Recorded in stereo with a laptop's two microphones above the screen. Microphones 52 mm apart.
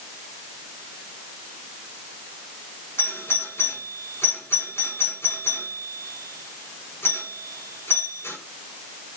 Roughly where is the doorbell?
Left.